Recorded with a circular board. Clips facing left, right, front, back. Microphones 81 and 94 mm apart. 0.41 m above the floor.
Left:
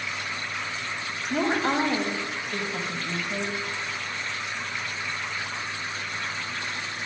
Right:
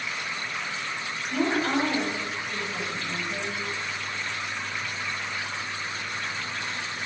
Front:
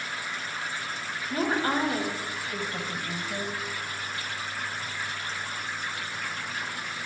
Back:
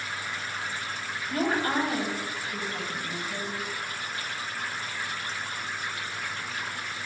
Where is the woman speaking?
55° left, 1.5 m; by 3.6 s 10° left, 2.5 m.